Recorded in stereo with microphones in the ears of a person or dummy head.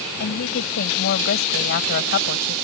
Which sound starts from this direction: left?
A woman speaking, at 0.2 s.